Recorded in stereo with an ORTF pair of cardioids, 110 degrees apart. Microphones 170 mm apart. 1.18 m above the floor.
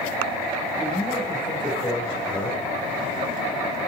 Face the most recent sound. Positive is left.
turn(degrees=30)